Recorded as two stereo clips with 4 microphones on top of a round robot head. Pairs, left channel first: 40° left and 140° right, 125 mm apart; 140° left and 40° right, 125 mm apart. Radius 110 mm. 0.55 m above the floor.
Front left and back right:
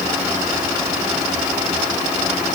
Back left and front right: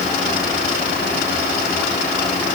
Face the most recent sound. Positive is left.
No sound to turn to.